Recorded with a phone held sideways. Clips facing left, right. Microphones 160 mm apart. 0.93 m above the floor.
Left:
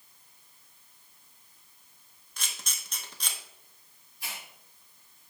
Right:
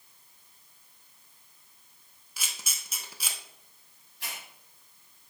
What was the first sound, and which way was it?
A camera shutter, 5° right (ahead or behind).